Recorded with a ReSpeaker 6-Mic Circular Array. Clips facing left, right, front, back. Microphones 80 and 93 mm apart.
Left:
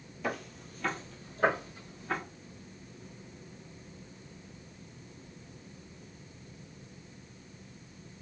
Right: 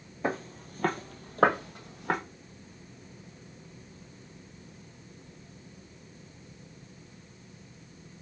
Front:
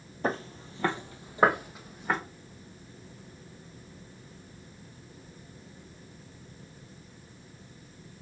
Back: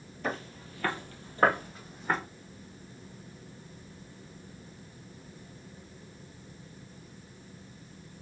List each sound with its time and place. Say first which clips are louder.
0.2 s footsteps: right 4 dB, front 4 dB; 40° right, 0.8 m; by 2.2 s 85° right, 1.5 m